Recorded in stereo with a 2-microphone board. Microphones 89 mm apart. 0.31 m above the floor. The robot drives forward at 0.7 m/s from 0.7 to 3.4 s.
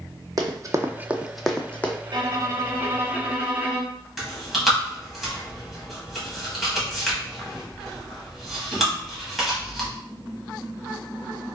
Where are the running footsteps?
45° right (ahead or behind), 0.7 m; by 1.9 s 20° left (ahead or behind), 0.8 m.